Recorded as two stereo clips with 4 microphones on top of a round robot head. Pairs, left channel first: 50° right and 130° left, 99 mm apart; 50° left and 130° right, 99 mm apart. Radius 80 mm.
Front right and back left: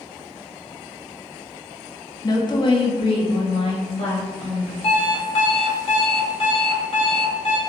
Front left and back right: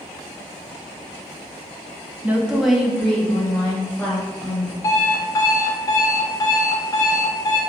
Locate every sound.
2.2 s a woman speaking: 70° right, 0.6 m; by 4.7 s 15° right, 1.6 m
4.8 s an alarm clock: 10° right, 0.7 m